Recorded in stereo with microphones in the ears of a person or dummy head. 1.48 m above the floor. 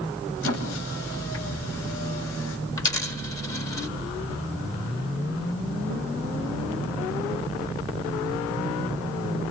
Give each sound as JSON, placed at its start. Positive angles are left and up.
{"t": 0.4, "sound": "a squeak", "side_deg": 85, "distance_m": 7.0}
{"t": 2.8, "sound": "a dropped coin", "side_deg": 20, "distance_m": 2.5}